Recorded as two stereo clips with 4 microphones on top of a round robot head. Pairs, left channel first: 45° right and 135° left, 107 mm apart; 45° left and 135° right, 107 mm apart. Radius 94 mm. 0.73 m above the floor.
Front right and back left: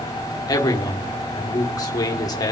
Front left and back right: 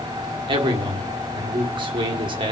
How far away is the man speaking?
About 2.0 m.